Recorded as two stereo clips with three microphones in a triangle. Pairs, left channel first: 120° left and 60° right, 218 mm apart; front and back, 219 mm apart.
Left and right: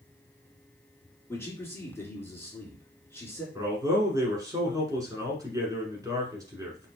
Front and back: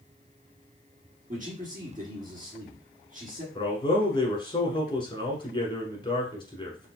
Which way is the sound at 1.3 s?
170° right.